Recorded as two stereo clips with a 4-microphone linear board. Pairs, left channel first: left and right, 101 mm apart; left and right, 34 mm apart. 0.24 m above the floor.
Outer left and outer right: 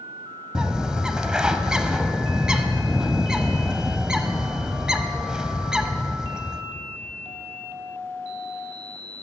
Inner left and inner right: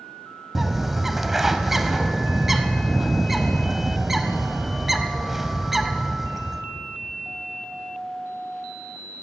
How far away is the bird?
About 0.7 m.